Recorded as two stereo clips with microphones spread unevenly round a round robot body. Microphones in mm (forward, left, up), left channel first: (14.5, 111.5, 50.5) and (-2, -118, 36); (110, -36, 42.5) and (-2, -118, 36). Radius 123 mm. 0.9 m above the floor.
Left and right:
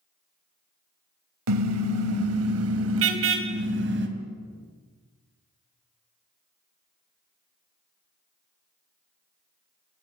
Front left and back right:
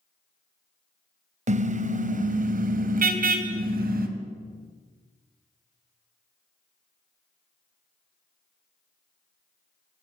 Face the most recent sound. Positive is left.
turn(degrees=-140)